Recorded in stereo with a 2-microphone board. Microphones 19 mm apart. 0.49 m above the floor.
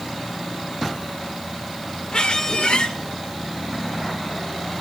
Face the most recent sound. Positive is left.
turn(degrees=55)  # may be behind; listen again after turning